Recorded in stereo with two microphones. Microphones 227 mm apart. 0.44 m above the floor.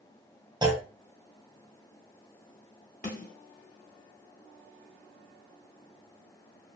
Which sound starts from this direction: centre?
A clunk, at 0.6 s.